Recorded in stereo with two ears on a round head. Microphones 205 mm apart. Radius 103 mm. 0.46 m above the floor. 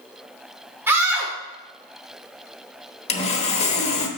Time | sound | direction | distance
0.9 | a scream | 10° right (ahead or behind) | 1.3 m
3.1 | sawing | 30° left (ahead or behind) | 1.0 m